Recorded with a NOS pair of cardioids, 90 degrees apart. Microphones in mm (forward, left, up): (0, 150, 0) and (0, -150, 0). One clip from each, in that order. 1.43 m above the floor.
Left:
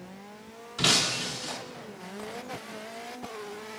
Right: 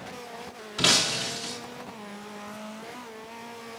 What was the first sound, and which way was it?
Breaking glass, 25° right.